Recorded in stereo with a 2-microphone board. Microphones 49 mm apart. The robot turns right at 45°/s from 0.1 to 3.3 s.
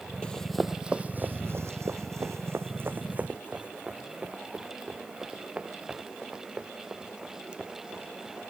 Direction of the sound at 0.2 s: 20° left (ahead or behind).